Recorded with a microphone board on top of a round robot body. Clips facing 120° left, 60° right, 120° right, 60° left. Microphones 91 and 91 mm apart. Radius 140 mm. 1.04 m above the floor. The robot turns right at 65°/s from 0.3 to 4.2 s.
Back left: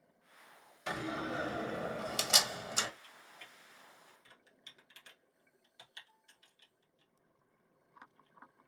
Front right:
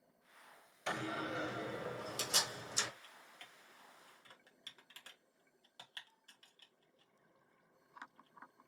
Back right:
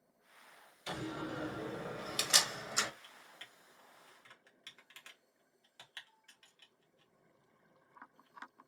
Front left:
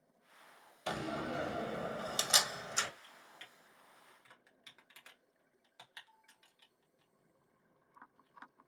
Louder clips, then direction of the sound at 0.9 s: Back left 2 dB, front left 3 dB; 35° left.